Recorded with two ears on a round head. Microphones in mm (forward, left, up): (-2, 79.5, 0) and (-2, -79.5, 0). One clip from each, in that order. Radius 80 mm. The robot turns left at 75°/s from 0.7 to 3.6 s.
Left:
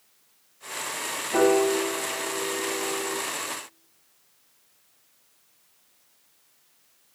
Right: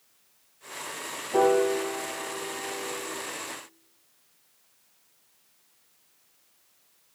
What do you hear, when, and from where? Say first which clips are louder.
1.3 s a piano: left 1 dB; 85° left, 5 m; by 3.2 s 55° right, 5 m